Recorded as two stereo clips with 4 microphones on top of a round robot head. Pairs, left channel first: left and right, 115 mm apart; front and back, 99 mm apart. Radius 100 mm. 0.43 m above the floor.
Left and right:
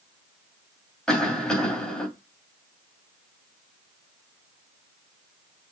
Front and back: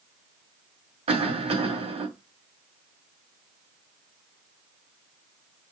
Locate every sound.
1.1 s a cough: 175° left, 2.5 m